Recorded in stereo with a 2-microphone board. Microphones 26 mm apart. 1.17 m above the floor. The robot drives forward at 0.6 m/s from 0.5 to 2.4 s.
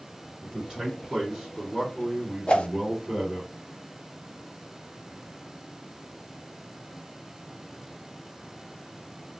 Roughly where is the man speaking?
Right.